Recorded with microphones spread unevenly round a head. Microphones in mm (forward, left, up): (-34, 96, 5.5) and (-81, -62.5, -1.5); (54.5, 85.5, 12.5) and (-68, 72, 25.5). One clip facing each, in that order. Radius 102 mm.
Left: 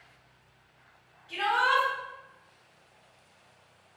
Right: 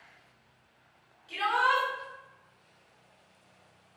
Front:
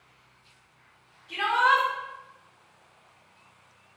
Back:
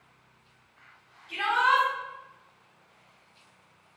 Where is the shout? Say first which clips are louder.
Left 1 dB, front 2 dB; 55° right, 1.5 m.